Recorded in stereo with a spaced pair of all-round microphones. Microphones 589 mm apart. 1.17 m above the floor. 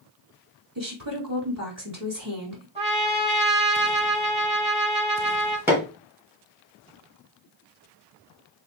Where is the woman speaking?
35° right (ahead or behind), 3.5 m.